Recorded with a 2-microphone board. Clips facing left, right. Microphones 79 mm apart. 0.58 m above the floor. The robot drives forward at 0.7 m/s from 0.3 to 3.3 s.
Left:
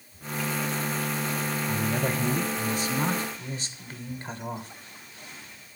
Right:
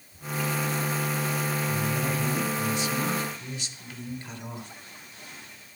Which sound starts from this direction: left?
A man speaking, at 1.7 s.